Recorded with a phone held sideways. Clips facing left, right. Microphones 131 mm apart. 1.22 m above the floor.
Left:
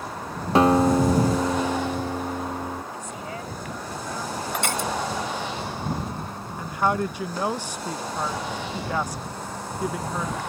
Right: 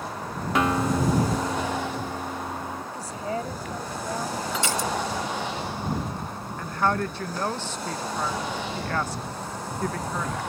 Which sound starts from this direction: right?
A woman speaking, at 2.9 s.